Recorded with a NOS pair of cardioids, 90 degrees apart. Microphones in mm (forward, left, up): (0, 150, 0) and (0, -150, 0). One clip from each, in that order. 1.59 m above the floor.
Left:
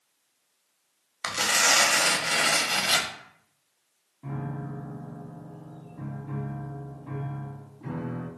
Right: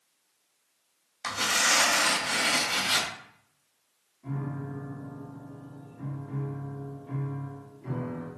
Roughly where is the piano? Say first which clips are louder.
Left 1 dB; ahead left.